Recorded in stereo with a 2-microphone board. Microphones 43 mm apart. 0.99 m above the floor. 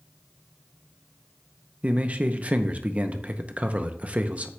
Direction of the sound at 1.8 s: 30° right (ahead or behind).